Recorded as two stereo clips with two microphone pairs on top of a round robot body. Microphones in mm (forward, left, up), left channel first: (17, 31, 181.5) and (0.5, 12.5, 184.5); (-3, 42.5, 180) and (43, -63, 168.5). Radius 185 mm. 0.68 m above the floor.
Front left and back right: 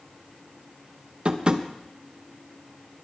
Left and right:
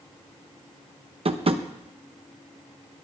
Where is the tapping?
85° right, 1.1 m.